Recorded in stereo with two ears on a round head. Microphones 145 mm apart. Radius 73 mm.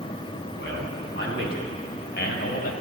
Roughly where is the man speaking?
Left.